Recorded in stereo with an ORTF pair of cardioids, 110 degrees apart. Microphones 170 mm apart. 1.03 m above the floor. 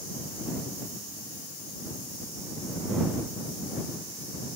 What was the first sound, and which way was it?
Only background noise.